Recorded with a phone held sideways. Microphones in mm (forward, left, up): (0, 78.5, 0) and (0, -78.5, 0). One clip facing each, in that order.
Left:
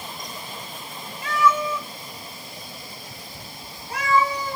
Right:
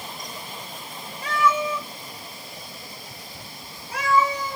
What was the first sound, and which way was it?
A cat meowing, 40° right (ahead or behind).